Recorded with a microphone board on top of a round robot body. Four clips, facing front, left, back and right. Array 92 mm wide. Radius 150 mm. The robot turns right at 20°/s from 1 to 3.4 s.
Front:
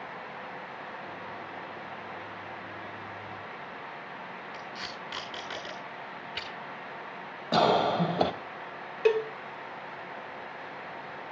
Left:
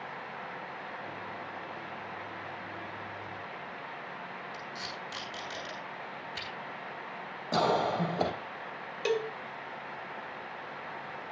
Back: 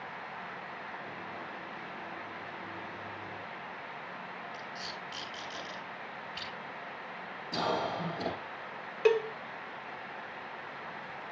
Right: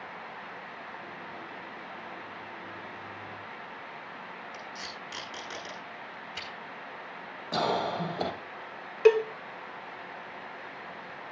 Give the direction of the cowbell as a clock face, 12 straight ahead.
3 o'clock.